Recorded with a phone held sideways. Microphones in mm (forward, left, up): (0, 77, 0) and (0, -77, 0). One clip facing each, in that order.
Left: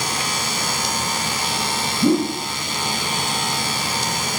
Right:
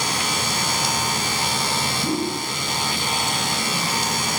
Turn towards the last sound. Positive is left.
turn(degrees=70)  # may be behind; listen again after turning